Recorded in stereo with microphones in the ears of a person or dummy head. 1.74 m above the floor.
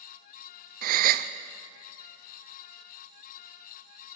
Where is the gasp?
50° right (ahead or behind), 0.7 m.